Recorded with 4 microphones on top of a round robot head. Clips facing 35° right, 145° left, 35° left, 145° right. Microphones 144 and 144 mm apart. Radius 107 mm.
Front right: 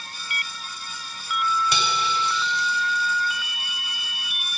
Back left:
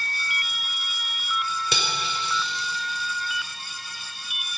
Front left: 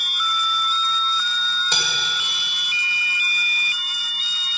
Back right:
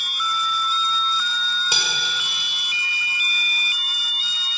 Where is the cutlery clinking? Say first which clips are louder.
Front right 5 dB, even; 135° left, 2 m.